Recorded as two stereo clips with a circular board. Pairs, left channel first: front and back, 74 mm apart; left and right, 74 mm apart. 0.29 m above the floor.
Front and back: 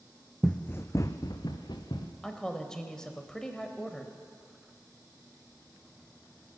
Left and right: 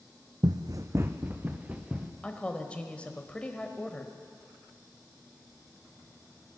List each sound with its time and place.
0.4 s running footsteps: 85° right, 0.7 m; by 2.1 s 10° right, 1.8 m
2.2 s a woman speaking: 60° left, 0.9 m